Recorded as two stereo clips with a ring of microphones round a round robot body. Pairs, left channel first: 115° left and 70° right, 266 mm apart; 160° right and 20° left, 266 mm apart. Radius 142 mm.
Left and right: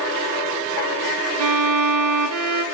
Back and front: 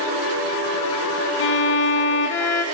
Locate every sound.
1.4 s a violin: 105° right, 0.5 m